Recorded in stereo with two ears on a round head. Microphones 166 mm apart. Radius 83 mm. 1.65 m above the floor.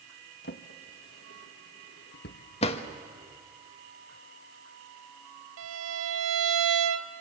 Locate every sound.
0.4 s a drawer: 55° left (ahead or behind), 1.2 m
2.6 s a drawer: 35° left (ahead or behind), 1.3 m
5.6 s a violin: 80° right, 1.1 m